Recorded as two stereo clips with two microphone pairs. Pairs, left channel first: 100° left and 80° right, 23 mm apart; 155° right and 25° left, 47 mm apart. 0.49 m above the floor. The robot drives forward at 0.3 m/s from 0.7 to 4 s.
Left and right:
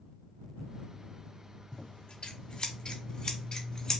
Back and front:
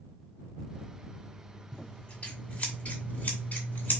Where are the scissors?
135° left, 0.8 m; by 4.0 s 155° left, 1.3 m.